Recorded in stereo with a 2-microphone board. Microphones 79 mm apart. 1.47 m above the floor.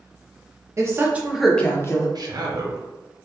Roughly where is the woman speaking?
Right.